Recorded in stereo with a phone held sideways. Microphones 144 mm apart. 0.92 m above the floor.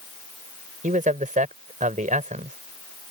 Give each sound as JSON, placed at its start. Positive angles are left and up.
{"t": 0.8, "sound": "a man speaking", "side_deg": -65}